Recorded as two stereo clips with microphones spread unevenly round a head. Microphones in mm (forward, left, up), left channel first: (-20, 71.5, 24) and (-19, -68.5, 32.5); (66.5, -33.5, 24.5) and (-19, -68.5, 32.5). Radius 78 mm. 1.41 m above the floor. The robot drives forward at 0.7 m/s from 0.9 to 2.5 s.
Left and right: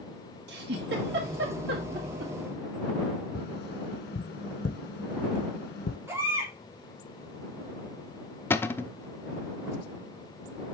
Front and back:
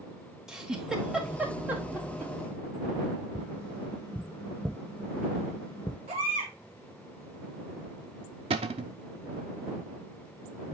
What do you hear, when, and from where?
0.5 s a giggle: 75° right, 2.5 m; by 2.3 s 100° right, 2.5 m
3.4 s tapping: 105° left, 1.2 m
6.1 s a baby crying: 165° right, 3 m
8.5 s a cupboard door: 165° left, 0.6 m